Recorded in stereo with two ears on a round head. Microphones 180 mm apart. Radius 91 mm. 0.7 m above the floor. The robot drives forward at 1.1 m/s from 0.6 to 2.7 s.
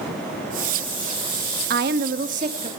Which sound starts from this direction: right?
A woman speaking, at 1.7 s.